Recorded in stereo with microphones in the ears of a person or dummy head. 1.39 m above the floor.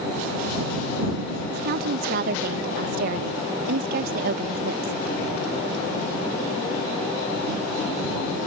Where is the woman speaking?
55° right (ahead or behind).